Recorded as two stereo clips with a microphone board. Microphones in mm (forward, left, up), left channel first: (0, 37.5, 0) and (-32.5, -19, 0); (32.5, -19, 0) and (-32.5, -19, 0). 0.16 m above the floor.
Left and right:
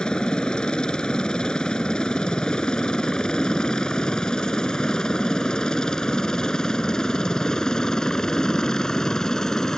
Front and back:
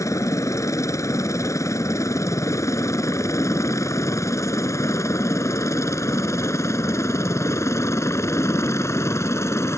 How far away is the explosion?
No explosion in this recording.